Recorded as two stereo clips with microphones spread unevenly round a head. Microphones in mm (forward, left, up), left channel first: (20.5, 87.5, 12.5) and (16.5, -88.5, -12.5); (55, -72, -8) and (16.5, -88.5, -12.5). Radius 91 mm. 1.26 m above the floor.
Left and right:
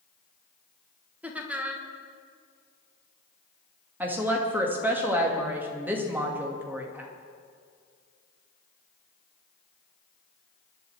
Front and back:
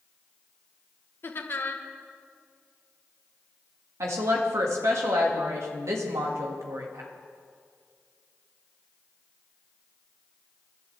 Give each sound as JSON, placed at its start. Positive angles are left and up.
{"t": 1.2, "sound": "laughter", "azimuth_deg": -10, "distance_m": 1.6}
{"t": 4.0, "sound": "a woman speaking", "azimuth_deg": -175, "distance_m": 1.8}